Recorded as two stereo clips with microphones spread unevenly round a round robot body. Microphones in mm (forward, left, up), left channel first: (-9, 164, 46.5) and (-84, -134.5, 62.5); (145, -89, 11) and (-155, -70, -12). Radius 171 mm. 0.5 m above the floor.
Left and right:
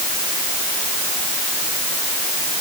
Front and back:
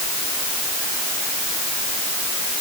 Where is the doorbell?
I don't hear a doorbell.